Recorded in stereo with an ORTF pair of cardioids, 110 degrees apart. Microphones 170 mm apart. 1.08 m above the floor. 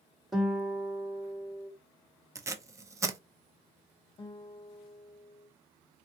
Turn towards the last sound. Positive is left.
turn(degrees=35)